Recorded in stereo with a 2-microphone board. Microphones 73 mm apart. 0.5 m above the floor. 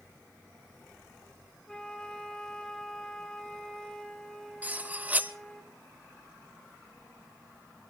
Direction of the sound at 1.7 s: 10° left (ahead or behind).